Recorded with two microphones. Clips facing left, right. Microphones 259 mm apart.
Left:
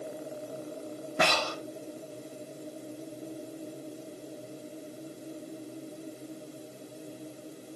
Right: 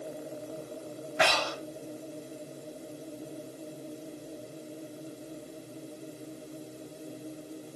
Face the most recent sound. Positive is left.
turn(degrees=50)  # may be behind; listen again after turning